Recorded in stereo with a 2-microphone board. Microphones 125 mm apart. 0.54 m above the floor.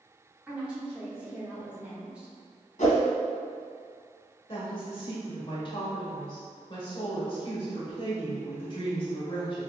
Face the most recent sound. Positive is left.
turn(degrees=40)  # may be behind; listen again after turning